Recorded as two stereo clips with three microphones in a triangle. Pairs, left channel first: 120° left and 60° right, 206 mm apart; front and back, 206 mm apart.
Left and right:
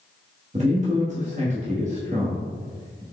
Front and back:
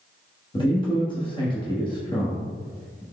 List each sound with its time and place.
0.5 s a man speaking: 50° right, 0.9 m